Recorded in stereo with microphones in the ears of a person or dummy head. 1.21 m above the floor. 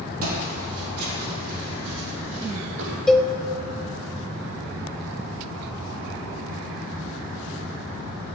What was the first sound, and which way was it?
Footsteps, 50° right (ahead or behind).